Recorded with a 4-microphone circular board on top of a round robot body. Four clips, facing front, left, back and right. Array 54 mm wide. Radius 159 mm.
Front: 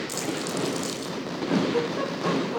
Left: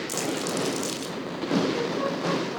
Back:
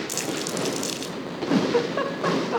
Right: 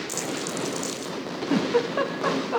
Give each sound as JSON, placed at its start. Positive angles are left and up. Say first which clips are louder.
{"t": 0.1, "sound": "crumpling", "louder": "left 4 dB, back 1 dB", "azimuth_deg": 160, "distance_m": 4.0}
{"t": 1.5, "sound": "a giggle", "louder": "right 3 dB, back 3 dB", "azimuth_deg": -130, "distance_m": 1.4}